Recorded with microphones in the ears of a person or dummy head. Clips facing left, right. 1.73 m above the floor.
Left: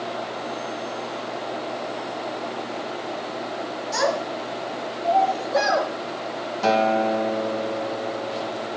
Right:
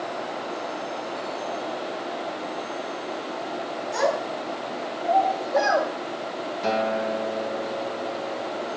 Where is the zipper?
I don't hear a zipper.